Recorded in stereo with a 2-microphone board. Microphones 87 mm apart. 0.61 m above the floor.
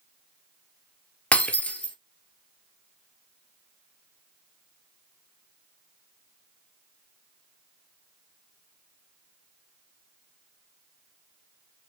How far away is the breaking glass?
About 1.1 m.